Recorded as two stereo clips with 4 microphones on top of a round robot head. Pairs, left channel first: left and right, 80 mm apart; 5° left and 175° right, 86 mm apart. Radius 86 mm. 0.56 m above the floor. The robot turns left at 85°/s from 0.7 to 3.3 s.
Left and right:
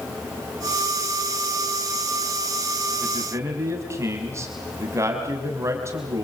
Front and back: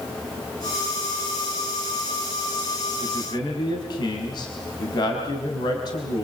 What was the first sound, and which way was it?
A man speaking, 10° right.